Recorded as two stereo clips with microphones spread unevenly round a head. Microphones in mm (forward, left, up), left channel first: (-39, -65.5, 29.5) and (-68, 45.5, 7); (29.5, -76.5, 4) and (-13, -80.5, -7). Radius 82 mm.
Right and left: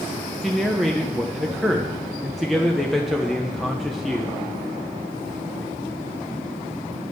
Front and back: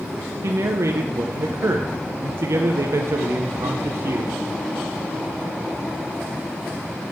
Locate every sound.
0.4 s a man speaking: 155° right, 0.5 m